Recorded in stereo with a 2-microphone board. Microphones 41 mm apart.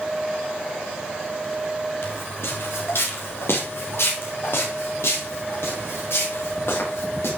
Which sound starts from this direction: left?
Footsteps, at 2.0 s.